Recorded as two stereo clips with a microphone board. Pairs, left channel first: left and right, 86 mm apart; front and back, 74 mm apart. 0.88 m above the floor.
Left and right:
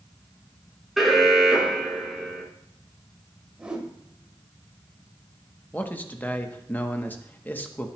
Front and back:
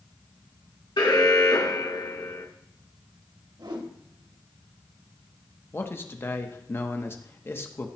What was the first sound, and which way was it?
An alarm, straight ahead.